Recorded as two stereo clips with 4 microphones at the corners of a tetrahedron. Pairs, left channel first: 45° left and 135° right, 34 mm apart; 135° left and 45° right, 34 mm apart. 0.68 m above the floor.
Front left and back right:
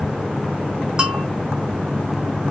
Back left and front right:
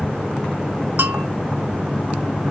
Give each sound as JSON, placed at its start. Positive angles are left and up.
{"t": 1.0, "sound": "a bell", "azimuth_deg": -75, "distance_m": 0.9}